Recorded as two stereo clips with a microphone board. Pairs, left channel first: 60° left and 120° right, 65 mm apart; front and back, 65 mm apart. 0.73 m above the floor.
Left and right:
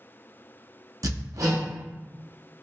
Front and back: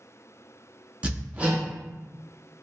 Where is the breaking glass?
I don't hear breaking glass.